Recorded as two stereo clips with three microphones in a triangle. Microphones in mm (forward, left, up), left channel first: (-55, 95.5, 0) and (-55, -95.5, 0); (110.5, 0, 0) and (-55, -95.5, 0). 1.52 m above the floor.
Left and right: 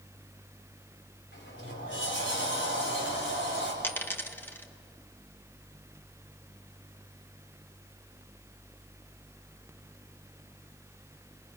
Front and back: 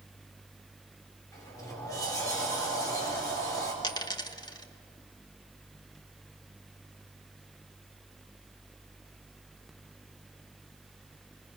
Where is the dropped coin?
30° left, 1.1 m.